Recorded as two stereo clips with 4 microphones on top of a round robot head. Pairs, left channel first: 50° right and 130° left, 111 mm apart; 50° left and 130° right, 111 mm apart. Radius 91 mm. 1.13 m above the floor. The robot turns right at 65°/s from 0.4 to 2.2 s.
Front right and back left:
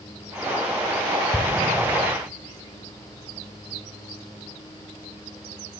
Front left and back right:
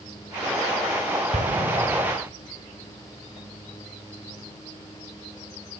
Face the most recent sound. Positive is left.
turn(degrees=-85)